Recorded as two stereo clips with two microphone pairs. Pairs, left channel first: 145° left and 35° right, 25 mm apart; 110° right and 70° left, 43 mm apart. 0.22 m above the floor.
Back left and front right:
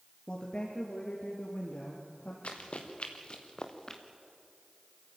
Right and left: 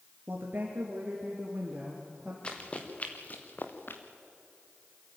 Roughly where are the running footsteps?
Behind.